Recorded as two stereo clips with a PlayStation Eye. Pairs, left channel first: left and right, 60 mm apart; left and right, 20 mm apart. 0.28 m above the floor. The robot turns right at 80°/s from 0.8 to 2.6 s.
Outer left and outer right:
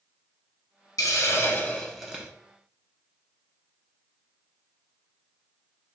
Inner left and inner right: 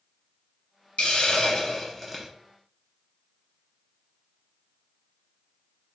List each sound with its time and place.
1.0 s a hiss: 100° left, 0.9 m; by 2.3 s 155° right, 0.9 m